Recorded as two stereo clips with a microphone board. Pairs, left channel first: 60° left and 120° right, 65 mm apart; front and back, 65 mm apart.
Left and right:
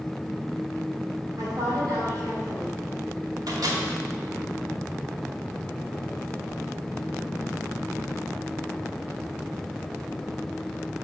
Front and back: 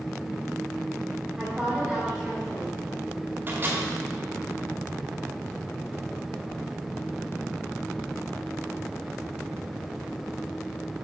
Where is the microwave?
120° right, 2 m.